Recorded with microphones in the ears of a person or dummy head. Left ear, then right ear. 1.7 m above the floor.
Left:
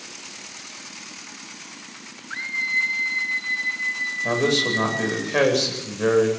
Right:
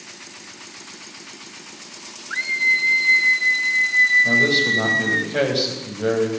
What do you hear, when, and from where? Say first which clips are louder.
2.3 s a scream: right 5 dB; 20° right (ahead or behind), 3.5 m; by 5.2 s 75° right (ahead or behind), 5.5 m
4.2 s a man speaking: right 5 dB; 55° left (ahead or behind), 9.5 m